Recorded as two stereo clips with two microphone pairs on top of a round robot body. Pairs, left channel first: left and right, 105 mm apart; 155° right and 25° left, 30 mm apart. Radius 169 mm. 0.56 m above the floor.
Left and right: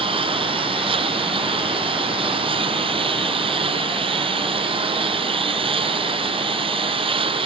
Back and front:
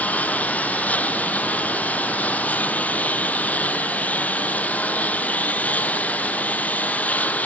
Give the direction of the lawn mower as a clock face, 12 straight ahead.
4 o'clock.